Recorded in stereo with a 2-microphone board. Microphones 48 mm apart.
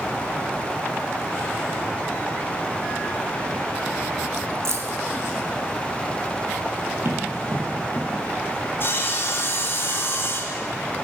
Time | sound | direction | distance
4.7 | keys jangling | 55° right (ahead or behind) | 0.8 m
7.0 | running footsteps | 55° right (ahead or behind) | 2.5 m
8.8 | sawing | 45° left (ahead or behind) | 0.8 m